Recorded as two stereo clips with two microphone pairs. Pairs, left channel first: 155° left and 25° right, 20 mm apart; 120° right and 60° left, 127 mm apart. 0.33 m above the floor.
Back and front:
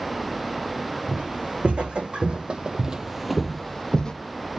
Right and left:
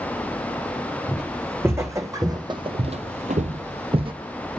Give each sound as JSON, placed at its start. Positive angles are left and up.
{"t": 1.1, "sound": "footsteps", "azimuth_deg": -20, "distance_m": 2.0}